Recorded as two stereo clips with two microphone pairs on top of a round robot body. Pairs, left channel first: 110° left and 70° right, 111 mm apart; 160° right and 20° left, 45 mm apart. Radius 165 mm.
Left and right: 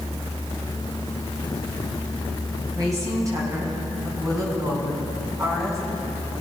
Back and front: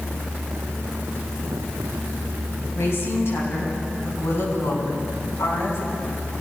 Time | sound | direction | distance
2.8 | a woman speaking | 130° right | 9 m